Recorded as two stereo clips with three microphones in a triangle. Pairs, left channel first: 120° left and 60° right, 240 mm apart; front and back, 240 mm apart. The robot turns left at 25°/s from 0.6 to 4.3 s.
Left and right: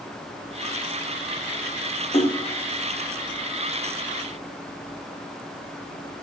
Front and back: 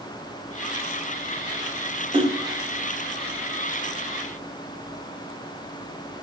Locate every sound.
2.1 s a splash: 145° left, 1.2 m; by 6.2 s 90° left, 1.2 m